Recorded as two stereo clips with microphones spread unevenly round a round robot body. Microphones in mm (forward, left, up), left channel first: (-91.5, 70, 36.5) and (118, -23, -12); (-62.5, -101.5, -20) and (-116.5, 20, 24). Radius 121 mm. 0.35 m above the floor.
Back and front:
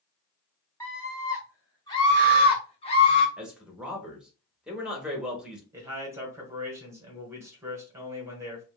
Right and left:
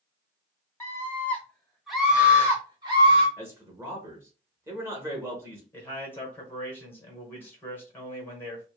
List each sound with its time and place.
0.8 s a scream: 120° right, 1.8 m; by 3.3 s 95° left, 1.1 m
3.4 s a man speaking: 20° left, 0.8 m
5.7 s a man speaking: 65° right, 1.1 m